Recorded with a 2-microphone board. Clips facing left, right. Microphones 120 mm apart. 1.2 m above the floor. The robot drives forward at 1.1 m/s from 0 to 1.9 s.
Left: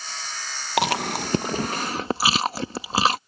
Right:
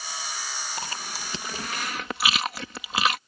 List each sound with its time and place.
0.8 s chewing: 85° left; by 3.2 s 35° left (ahead or behind)